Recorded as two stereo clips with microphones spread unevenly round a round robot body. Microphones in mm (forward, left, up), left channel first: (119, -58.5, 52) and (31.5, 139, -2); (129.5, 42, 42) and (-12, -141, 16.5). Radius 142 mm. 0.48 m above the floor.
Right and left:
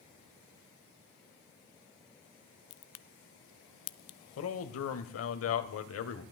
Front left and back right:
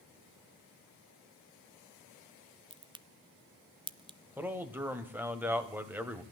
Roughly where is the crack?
Ahead right.